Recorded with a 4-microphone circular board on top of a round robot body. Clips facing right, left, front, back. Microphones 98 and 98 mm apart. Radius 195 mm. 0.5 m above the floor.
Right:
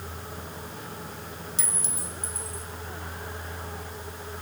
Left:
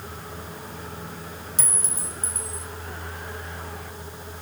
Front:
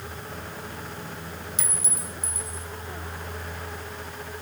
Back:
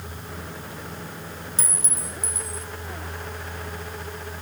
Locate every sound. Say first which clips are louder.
1.6 s a clink: left 2 dB, back 1 dB; 130° left, 2.5 m